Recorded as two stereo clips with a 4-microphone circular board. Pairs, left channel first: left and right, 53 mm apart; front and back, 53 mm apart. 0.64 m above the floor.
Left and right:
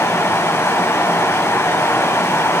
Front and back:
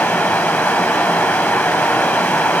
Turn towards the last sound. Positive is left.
turn(degrees=65)